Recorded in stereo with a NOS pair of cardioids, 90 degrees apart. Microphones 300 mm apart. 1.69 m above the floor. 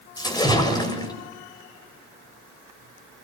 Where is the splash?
15° left, 6.5 m.